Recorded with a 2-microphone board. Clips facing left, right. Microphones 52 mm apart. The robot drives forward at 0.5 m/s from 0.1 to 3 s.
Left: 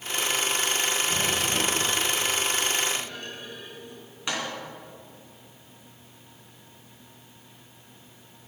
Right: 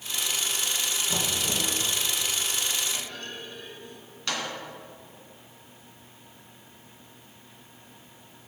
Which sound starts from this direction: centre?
A clunk, at 2.9 s.